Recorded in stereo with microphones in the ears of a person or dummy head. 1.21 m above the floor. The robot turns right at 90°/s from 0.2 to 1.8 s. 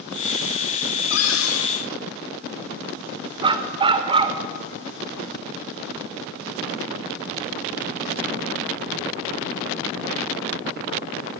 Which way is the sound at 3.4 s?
25° right (ahead or behind).